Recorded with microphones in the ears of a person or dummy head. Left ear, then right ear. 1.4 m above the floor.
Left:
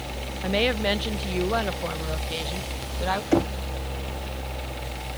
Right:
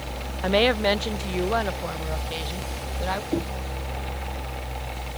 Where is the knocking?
50° left (ahead or behind).